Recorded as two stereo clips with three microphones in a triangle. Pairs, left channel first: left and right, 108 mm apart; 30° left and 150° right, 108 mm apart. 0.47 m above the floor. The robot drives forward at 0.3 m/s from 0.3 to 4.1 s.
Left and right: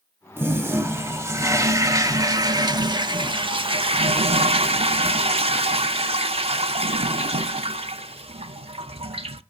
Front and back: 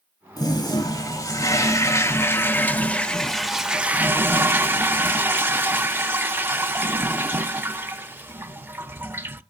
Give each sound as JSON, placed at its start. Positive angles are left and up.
{"t": 0.4, "sound": "a toilet flushing", "azimuth_deg": -20, "distance_m": 1.3}